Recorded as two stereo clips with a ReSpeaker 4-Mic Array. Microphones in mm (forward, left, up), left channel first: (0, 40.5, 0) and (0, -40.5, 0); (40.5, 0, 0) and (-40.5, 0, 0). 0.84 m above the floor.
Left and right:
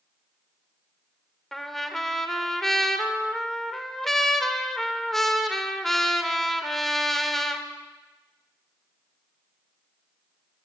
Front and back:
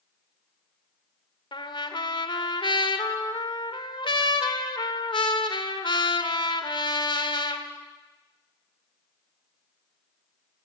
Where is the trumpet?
5° left, 2 m.